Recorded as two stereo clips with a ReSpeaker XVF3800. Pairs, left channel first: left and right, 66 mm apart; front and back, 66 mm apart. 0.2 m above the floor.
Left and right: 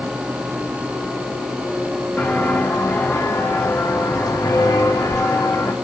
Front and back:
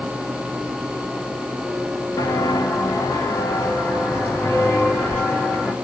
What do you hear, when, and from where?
2.2 s footsteps: 25° left, 2 m; by 5.7 s 65° left, 3 m